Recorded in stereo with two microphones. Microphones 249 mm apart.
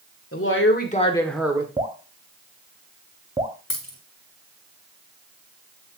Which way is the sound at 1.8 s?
20° right (ahead or behind).